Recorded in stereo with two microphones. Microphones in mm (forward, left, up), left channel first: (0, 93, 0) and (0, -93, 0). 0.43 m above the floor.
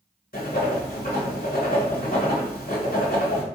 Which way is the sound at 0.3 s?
55° left (ahead or behind).